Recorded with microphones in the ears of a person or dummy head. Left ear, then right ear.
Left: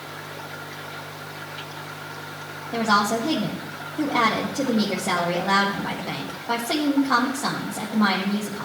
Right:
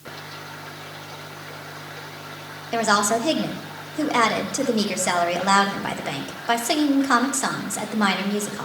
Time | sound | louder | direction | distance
2.7 | a woman speaking | right 1 dB | 65° right (ahead or behind) | 2 m